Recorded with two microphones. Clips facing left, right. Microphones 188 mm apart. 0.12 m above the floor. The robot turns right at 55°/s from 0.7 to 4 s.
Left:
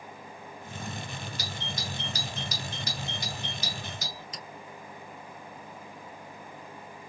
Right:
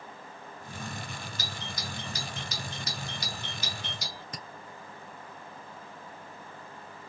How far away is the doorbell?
About 1.7 m.